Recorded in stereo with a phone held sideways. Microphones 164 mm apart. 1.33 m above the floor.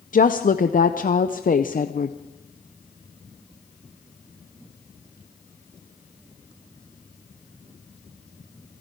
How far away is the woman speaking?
About 0.6 m.